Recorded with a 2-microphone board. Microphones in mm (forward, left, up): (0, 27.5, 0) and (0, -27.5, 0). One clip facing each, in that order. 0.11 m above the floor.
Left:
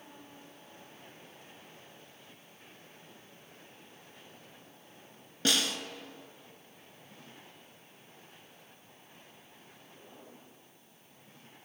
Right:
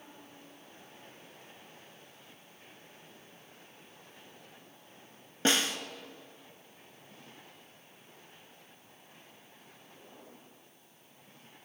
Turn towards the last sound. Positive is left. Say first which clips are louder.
# right 2 dB
turn(degrees=-30)  # may be behind; listen again after turning